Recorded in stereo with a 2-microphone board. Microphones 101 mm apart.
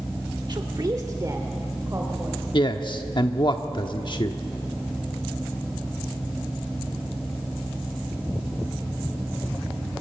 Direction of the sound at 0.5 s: 45° right (ahead or behind).